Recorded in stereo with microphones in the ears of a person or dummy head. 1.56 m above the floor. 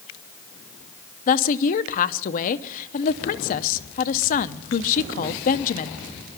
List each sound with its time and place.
1.3 s a woman speaking: 40° left (ahead or behind), 0.7 m